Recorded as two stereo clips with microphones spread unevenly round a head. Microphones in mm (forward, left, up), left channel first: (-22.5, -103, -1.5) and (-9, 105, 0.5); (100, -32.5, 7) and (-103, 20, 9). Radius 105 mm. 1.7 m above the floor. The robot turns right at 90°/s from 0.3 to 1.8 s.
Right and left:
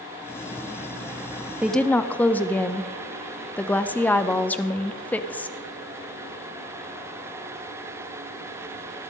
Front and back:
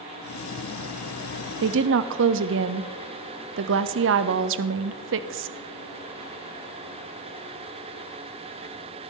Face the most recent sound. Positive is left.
turn(degrees=-175)